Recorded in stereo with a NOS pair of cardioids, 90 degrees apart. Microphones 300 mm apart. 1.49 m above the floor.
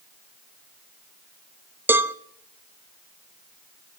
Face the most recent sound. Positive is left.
turn(degrees=-5)